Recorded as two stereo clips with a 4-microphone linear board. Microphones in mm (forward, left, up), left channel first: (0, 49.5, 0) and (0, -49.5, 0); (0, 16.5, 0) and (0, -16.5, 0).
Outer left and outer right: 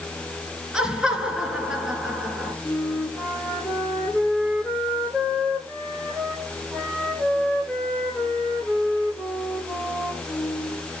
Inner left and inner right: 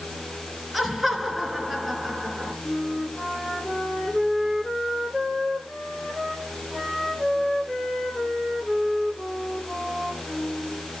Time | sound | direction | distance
0.7 | laughter | 10° right (ahead or behind) | 3 m
2.6 | a flute | centre (ahead or behind) | 3.5 m